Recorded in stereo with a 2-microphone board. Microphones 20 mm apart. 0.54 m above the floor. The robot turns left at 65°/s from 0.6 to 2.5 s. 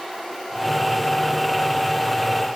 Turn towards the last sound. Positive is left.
No sound to turn to.